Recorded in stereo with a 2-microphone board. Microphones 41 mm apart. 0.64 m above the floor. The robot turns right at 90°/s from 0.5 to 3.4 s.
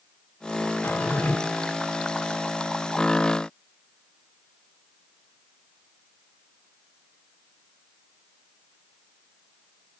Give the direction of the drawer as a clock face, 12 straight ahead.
9 o'clock.